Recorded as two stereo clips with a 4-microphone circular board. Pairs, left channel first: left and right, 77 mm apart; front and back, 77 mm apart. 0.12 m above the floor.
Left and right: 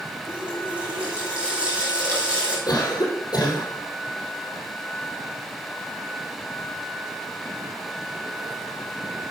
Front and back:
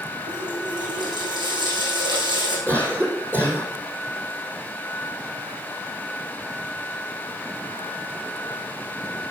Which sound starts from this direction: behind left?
A cough, at 2.7 s.